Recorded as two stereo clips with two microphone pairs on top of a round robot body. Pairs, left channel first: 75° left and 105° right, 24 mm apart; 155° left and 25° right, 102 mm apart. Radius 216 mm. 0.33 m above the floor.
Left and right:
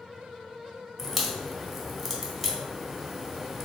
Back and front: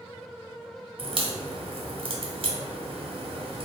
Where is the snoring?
No snoring in this recording.